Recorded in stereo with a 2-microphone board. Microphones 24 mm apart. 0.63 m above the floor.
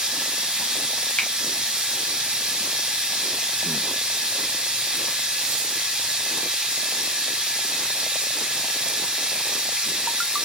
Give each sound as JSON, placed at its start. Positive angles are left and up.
{"t": 0.0, "sound": "running water", "side_deg": -45, "distance_m": 1.1}
{"t": 1.2, "sound": "a finger snap", "side_deg": 50, "distance_m": 1.2}